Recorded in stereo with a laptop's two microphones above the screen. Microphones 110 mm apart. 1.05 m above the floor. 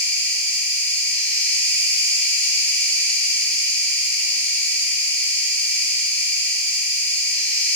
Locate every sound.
0.0 s an insect: 15° left (ahead or behind), 3 m